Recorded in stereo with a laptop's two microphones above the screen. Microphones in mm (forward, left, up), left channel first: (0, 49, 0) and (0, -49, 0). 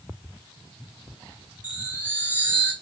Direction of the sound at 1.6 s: 15° right (ahead or behind).